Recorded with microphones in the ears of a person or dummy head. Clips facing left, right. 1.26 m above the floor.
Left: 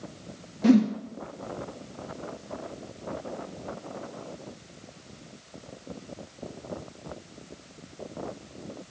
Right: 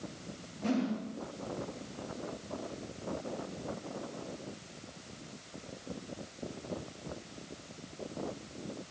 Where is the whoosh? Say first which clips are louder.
Left 12 dB; 75° left (ahead or behind), 1.2 m.